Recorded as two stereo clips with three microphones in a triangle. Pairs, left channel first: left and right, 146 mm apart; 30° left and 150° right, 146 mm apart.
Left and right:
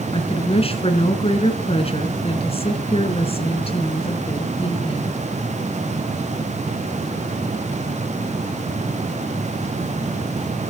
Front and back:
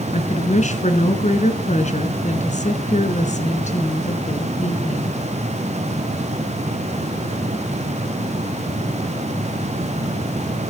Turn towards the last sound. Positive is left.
turn(degrees=50)